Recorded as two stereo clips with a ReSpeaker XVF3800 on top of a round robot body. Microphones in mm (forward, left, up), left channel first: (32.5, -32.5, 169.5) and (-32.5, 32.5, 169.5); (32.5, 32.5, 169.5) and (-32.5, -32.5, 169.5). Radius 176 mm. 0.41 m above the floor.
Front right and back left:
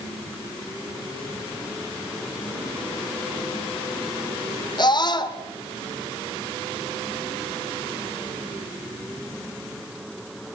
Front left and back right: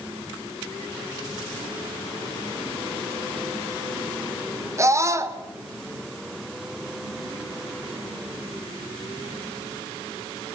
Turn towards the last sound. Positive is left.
turn(degrees=-80)